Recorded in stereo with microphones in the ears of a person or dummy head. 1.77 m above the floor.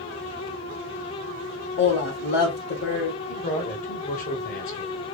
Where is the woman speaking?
60° left (ahead or behind), 1.8 m.